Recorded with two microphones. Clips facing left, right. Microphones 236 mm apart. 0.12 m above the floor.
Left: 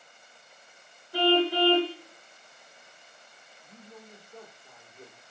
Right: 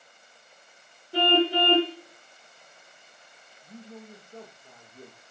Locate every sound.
1.1 s a car horn: 25° right (ahead or behind), 9 m
3.6 s a man speaking: 35° right (ahead or behind), 8 m